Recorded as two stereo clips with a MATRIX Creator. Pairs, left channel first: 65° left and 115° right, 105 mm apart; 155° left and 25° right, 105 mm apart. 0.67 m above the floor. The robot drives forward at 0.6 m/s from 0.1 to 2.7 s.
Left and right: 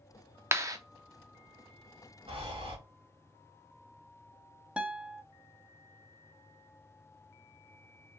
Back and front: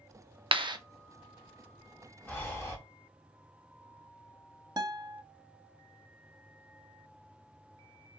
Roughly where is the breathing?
Behind right.